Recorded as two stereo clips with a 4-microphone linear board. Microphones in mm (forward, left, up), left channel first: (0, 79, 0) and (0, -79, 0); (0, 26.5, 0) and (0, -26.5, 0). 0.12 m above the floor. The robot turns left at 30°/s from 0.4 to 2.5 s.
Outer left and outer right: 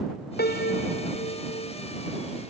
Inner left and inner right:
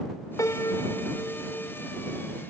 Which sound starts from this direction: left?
A piano, at 0.4 s.